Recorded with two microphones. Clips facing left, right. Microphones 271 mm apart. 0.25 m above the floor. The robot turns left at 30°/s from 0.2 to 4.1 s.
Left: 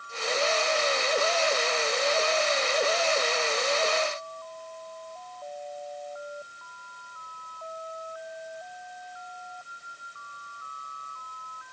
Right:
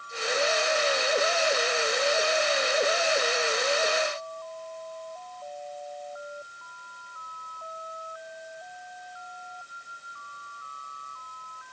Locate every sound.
Only background noise.